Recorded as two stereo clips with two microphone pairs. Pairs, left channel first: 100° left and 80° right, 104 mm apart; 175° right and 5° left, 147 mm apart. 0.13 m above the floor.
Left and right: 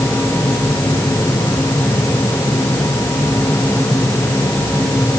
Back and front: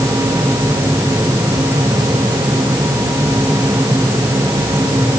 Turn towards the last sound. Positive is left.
No sound to turn to.